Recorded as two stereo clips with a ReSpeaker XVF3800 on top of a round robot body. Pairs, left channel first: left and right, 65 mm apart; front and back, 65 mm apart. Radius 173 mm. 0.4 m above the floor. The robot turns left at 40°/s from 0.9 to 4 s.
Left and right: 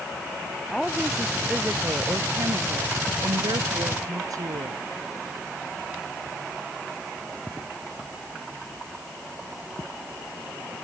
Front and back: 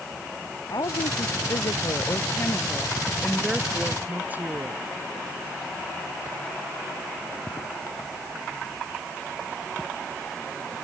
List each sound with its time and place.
0.7 s a woman speaking: 5° left; by 4.8 s 120° right